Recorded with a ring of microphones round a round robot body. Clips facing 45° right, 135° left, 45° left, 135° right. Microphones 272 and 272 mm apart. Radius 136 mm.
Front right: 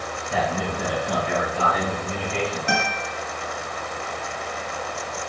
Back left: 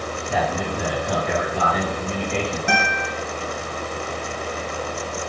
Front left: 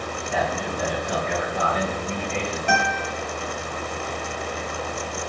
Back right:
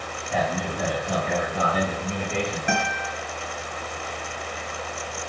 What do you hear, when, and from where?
0.3 s a man speaking: 130° left, 2.5 m; by 2.6 s 150° left, 3.5 m
2.7 s a guitar: 155° left, 2 m